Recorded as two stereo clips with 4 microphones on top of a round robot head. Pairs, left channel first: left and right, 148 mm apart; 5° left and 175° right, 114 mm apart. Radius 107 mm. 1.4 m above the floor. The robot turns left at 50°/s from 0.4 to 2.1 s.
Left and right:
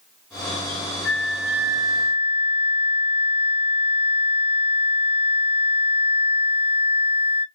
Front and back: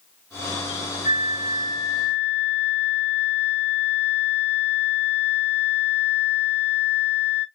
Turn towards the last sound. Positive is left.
turn(degrees=-40)